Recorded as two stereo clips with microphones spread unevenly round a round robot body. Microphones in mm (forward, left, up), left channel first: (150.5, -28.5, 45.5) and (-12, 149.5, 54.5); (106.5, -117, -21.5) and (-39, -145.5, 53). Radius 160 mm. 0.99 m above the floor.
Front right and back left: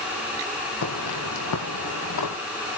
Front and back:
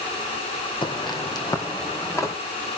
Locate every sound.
0.8 s footsteps: 55° right, 3 m; by 2.3 s 70° right, 3.5 m